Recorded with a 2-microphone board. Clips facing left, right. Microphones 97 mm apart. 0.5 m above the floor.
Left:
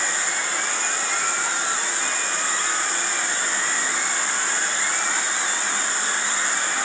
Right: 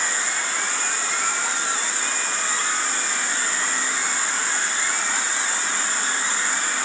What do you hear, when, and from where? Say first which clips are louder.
0.0 s an insect: even; 70° left (ahead or behind), 1.7 m